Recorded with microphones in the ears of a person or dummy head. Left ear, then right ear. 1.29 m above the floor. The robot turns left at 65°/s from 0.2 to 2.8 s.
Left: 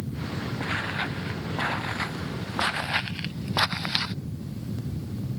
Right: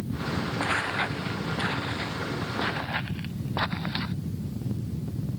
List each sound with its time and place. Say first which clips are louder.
0.6 s footsteps: right 2 dB; 40° right (ahead or behind); by 4.1 s 75° left (ahead or behind)